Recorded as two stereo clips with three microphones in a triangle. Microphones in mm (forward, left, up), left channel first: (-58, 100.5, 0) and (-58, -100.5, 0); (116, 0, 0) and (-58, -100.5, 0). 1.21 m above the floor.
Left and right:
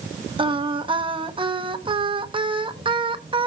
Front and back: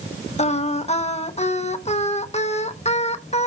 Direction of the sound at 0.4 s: 30° right.